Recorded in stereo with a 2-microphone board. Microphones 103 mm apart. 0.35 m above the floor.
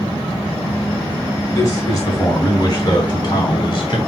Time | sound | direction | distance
1.5 | a man speaking | 25° left (ahead or behind) | 3.5 m